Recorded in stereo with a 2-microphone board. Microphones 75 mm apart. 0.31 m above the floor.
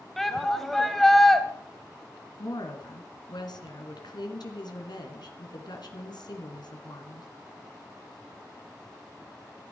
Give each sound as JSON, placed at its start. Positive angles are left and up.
{"t": 0.2, "sound": "a shout", "side_deg": 5, "distance_m": 1.5}
{"t": 2.4, "sound": "a woman speaking", "side_deg": 70, "distance_m": 2.5}